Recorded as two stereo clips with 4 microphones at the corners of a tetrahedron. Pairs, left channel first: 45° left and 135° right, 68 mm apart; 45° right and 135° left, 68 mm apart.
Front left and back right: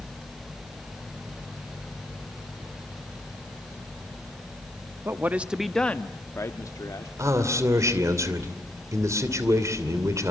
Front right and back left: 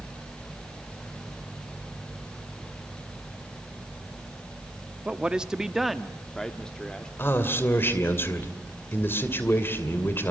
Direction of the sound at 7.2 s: 95° right.